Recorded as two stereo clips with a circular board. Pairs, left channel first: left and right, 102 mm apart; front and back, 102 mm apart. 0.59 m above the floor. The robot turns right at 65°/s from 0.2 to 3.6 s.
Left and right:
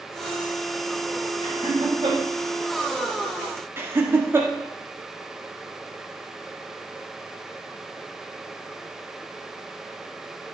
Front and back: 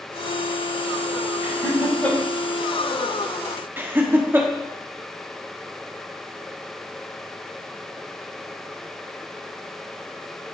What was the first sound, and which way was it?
Laughter, 115° right.